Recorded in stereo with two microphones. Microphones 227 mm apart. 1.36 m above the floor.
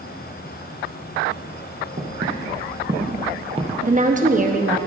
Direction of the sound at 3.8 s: 35° right (ahead or behind).